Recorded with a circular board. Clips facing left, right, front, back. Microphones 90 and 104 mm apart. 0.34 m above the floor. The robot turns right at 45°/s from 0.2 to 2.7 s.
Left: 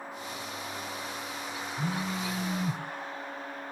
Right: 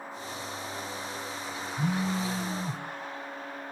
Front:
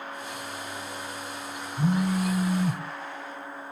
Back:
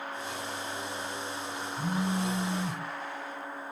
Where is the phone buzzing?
30° right, 0.9 m; by 2.8 s 15° left, 0.9 m.